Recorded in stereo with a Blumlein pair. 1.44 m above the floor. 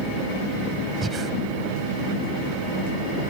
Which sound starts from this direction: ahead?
Breathing, at 1.0 s.